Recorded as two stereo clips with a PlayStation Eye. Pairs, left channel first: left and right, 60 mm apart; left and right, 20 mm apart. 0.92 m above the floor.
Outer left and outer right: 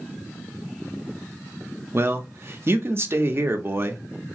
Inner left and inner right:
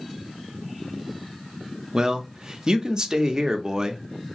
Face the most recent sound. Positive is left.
turn(degrees=-40)  # may be behind; listen again after turning